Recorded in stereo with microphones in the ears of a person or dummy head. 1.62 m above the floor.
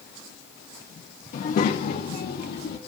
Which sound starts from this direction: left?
A child speaking, at 1.3 s.